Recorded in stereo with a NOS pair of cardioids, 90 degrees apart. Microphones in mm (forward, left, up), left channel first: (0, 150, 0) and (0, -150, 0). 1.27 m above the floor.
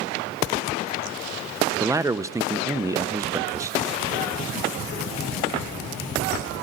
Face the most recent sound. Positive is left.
turn(degrees=-10)